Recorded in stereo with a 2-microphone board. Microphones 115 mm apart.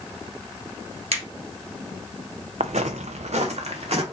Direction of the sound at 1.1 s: 65° right (ahead or behind).